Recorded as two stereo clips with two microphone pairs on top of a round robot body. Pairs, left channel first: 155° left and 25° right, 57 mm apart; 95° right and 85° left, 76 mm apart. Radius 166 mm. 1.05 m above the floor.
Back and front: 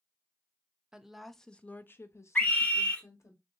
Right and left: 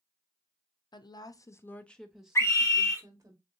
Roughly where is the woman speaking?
Right.